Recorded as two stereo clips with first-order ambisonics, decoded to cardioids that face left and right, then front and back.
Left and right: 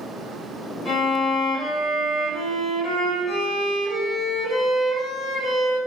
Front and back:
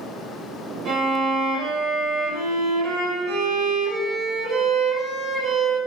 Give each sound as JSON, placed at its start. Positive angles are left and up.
{"t": 0.8, "sound": "a violin", "azimuth_deg": -175, "distance_m": 1.9}